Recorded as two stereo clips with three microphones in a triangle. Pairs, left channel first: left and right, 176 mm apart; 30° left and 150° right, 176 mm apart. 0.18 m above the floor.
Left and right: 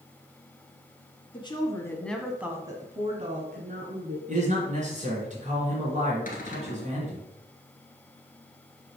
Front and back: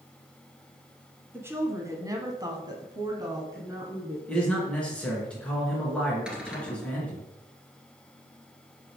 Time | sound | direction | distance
1.3 | a woman speaking | 140° left | 1.4 m
4.3 | a man speaking | 50° right | 3 m
6.3 | a cupboard door | 125° left | 1.5 m